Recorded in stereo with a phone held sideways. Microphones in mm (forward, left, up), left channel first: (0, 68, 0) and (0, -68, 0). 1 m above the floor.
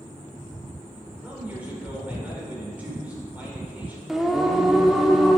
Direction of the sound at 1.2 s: 10° right (ahead or behind).